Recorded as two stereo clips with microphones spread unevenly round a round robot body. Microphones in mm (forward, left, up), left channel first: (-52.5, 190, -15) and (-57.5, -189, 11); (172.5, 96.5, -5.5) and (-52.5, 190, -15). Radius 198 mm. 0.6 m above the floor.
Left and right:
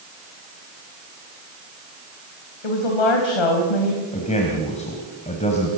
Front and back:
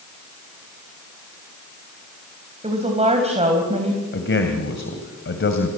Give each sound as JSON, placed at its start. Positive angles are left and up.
{"t": 2.6, "sound": "a woman speaking", "azimuth_deg": 95, "distance_m": 3.5}
{"t": 4.1, "sound": "a man speaking", "azimuth_deg": 15, "distance_m": 3.0}